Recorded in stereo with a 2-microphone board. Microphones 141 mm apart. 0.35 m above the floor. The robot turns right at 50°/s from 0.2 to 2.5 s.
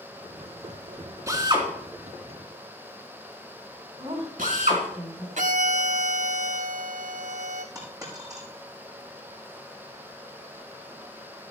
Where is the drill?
25° right (ahead or behind), 3.5 m; by 4.8 s 75° right (ahead or behind), 3.5 m.